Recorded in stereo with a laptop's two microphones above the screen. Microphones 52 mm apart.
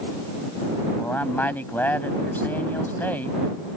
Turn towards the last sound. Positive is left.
turn(degrees=35)  # may be behind; listen again after turning